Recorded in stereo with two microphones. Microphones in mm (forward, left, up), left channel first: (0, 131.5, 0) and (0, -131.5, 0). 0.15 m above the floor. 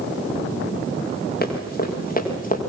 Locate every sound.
1.4 s running footsteps: 35° left (ahead or behind), 7.5 m; by 2.6 s 30° left (ahead or behind), 6.5 m